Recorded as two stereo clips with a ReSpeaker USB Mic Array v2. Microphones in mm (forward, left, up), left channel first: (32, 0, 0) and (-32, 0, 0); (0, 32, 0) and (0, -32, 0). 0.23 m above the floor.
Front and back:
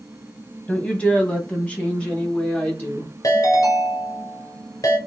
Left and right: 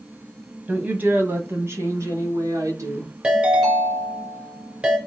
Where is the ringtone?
20° right, 1.9 m.